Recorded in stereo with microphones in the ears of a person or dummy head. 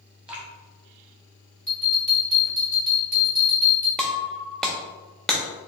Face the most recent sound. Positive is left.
turn(degrees=-5)  # may be behind; listen again after turning